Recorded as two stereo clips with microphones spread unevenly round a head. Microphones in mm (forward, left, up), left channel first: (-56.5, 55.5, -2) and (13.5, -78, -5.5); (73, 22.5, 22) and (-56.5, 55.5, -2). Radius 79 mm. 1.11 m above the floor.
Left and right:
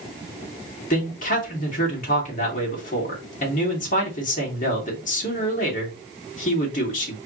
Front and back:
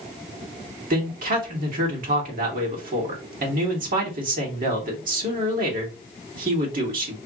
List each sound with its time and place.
0.9 s a man speaking: 155° left, 2.5 m